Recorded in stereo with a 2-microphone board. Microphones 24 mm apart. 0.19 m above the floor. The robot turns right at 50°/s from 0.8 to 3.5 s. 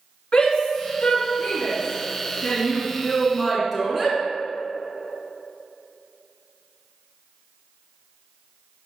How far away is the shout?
About 2.0 m.